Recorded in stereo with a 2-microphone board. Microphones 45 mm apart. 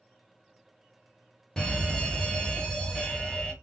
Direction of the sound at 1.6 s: 20° left (ahead or behind).